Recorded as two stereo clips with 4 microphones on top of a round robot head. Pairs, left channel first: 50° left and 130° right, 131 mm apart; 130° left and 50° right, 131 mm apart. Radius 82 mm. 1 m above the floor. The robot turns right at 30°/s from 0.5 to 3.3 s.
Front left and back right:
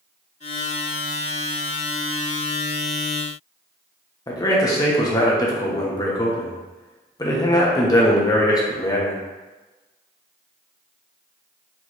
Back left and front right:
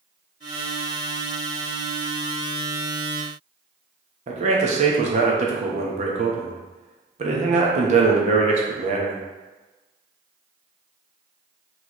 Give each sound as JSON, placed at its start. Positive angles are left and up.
{"t": 4.3, "sound": "a man speaking", "azimuth_deg": -15, "distance_m": 1.0}